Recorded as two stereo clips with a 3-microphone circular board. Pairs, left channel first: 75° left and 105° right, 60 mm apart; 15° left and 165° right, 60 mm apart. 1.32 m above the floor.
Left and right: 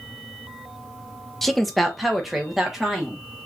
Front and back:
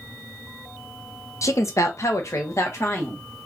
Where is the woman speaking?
10° right, 0.6 m; by 3.2 s 20° right, 1.5 m.